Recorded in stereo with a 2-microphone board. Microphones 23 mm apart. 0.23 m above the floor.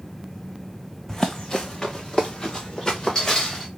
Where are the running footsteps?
20° left (ahead or behind), 0.7 m; by 3.7 s 25° left (ahead or behind), 2.5 m.